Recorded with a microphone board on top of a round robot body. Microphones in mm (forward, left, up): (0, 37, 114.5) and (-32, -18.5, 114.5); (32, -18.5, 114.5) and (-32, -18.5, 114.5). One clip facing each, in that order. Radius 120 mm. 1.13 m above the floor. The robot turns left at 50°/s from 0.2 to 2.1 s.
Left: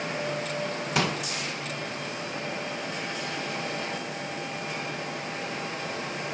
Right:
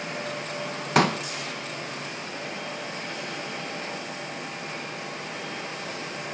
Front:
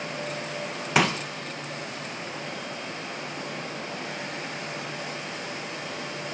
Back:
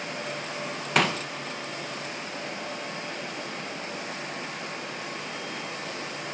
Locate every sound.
0.9 s a pop: 85° right, 1.4 m; by 1.2 s 95° right, 1.4 m